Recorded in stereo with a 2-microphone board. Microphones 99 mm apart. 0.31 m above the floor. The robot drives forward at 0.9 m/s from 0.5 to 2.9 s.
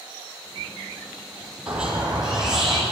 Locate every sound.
1.7 s a squeak: 10° right (ahead or behind), 1.1 m; by 2.8 s 5° right (ahead or behind), 2 m